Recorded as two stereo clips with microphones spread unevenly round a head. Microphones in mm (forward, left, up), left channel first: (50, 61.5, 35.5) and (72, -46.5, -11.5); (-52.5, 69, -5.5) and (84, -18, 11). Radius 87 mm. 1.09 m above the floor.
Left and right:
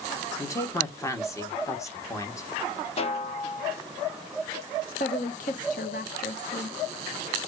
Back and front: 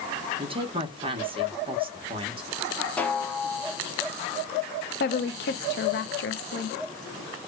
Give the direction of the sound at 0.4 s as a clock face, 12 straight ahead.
11 o'clock.